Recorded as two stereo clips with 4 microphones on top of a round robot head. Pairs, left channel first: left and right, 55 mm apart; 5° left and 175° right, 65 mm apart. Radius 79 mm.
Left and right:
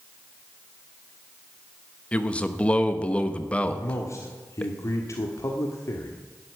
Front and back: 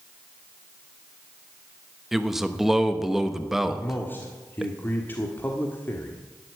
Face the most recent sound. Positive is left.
turn(degrees=65)